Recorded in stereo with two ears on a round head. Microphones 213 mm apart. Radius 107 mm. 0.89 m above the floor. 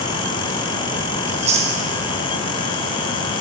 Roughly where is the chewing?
Right.